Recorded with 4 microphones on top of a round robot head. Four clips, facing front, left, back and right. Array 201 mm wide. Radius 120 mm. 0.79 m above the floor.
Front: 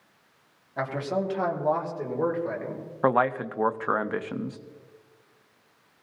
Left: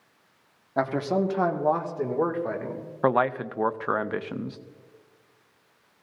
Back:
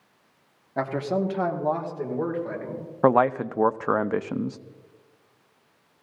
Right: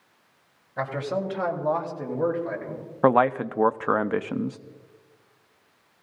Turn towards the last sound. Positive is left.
turn(degrees=-140)